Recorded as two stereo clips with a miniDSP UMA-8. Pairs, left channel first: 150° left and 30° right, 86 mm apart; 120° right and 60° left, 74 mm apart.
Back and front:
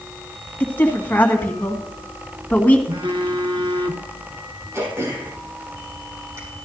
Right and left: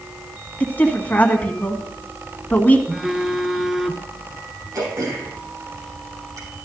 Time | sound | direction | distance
0.6 | a woman speaking | 160° right | 1.6 m
2.9 | a phone buzzing | 25° right | 1.1 m
4.7 | throat clearing | 25° left | 4 m